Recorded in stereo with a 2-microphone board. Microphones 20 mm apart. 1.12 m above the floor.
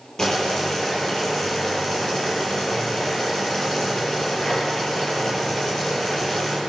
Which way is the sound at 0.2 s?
30° left (ahead or behind).